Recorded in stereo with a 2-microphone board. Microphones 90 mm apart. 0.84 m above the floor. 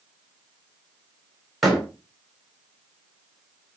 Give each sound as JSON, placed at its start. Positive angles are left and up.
{"t": 1.6, "sound": "a door slam", "side_deg": 0, "distance_m": 4.0}